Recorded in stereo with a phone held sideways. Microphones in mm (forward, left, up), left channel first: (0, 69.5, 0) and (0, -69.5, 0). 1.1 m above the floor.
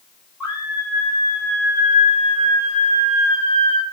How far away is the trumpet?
No trumpet in this recording.